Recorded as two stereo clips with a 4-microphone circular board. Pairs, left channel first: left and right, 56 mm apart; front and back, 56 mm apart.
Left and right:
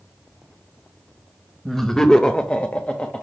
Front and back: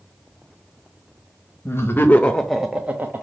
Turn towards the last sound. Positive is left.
turn(degrees=150)